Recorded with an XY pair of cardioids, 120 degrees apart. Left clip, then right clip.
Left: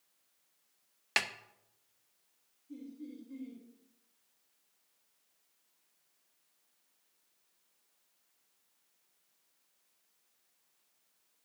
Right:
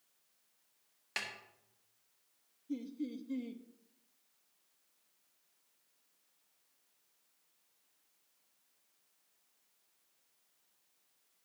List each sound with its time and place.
1.2 s a snare drum: 50° left, 0.8 m
2.7 s laughter: 70° right, 1.1 m